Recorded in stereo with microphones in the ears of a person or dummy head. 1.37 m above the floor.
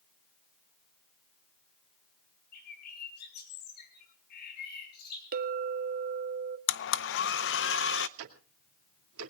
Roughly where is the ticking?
Right.